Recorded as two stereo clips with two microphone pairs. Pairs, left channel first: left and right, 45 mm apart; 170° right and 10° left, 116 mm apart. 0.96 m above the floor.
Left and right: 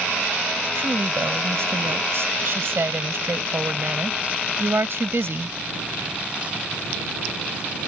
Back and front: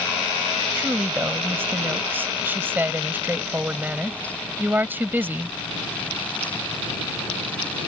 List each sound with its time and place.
0.8 s a woman speaking: 60° right